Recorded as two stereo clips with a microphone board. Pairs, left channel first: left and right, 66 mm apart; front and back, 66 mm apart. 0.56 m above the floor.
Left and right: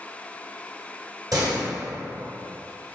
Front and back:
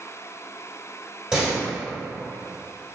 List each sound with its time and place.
1.3 s a door slam: 100° right, 1.7 m